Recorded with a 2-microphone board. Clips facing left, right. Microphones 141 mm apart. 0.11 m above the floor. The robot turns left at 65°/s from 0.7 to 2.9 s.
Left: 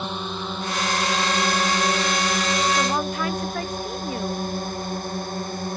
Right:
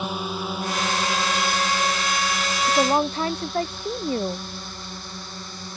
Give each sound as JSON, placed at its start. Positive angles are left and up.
{"t": 0.0, "sound": "a drone", "side_deg": -5}
{"t": 2.7, "sound": "a woman speaking", "side_deg": -45}